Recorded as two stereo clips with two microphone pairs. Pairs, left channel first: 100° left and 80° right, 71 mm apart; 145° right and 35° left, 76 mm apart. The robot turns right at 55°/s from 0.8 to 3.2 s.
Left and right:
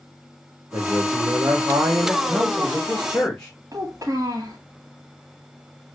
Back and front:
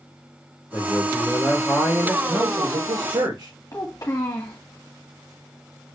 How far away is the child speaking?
About 1.5 m.